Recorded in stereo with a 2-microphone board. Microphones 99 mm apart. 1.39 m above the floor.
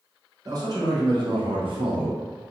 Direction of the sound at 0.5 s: 40° right (ahead or behind).